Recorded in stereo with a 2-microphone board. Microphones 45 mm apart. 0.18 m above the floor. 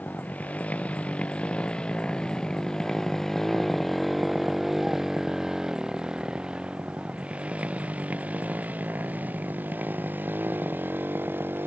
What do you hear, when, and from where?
0.0 s a motorcycle: 35° left (ahead or behind); by 11.7 s 50° right (ahead or behind)